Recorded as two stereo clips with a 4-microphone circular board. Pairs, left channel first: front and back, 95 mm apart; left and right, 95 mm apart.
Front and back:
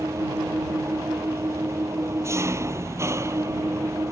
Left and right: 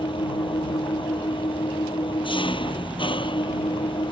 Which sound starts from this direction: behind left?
An engine running, at 0.0 s.